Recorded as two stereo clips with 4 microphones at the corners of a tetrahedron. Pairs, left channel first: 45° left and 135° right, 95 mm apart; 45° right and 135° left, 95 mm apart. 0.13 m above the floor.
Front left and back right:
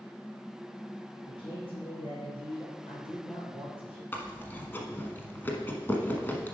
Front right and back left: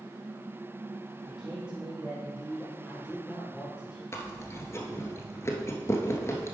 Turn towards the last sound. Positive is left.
turn(degrees=-10)